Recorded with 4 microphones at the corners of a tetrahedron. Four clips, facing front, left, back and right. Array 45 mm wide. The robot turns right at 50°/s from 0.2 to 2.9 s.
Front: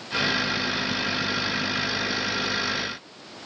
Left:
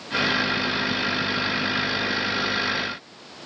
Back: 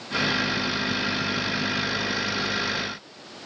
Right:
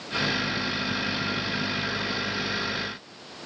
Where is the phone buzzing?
No phone buzzing in this recording.